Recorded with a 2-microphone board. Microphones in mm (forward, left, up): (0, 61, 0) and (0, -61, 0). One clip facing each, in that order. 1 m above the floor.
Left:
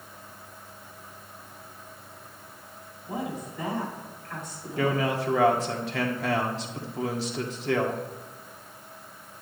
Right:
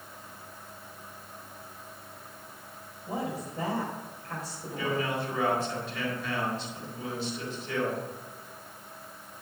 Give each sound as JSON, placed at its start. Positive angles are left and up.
{"t": 3.1, "sound": "a woman speaking", "side_deg": -35, "distance_m": 6.0}
{"t": 4.8, "sound": "a man speaking", "side_deg": 80, "distance_m": 1.8}